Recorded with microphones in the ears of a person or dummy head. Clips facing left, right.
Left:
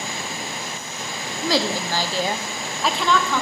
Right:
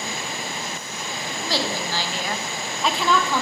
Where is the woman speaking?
70° left (ahead or behind), 0.9 m; by 3.4 s 5° right (ahead or behind), 1.5 m.